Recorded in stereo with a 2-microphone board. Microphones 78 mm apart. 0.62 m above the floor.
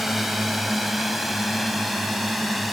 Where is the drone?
5° right (ahead or behind); by 2.7 s centre (ahead or behind).